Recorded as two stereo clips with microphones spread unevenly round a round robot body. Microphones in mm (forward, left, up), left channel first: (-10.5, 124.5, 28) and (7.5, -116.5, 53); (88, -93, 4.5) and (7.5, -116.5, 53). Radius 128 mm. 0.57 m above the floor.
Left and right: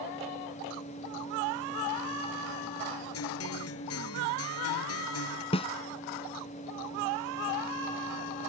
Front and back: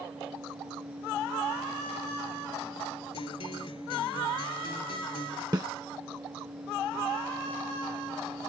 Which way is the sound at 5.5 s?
165° left.